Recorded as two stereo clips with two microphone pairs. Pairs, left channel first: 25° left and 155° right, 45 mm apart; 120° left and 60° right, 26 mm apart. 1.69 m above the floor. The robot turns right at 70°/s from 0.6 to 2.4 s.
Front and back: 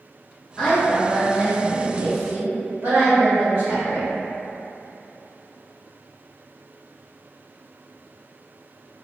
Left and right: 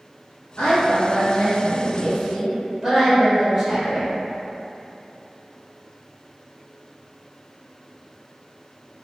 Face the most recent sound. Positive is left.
turn(degrees=-130)